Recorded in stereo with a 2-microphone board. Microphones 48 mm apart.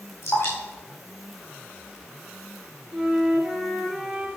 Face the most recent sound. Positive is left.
turn(degrees=-10)  # may be behind; listen again after turning